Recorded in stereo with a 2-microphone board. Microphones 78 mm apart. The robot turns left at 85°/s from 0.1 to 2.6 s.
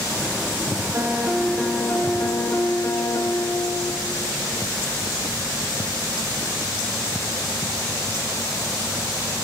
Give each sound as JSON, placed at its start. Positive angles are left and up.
{"t": 0.9, "sound": "a piano", "azimuth_deg": -130, "distance_m": 1.6}